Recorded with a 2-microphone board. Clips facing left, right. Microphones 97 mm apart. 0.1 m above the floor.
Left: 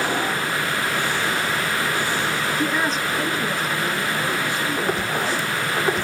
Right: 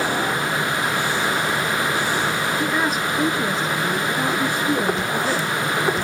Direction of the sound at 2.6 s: Centre (ahead or behind).